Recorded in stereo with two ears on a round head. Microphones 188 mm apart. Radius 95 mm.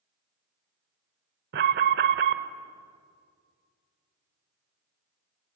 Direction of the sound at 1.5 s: 50° right (ahead or behind).